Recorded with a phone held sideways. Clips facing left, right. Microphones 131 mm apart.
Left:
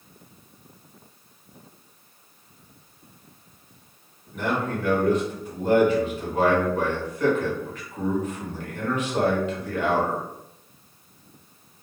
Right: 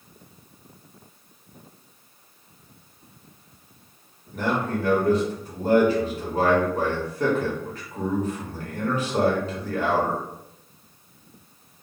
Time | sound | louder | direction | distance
4.3 | a man speaking | right 1 dB | 35° right (ahead or behind) | 1.3 m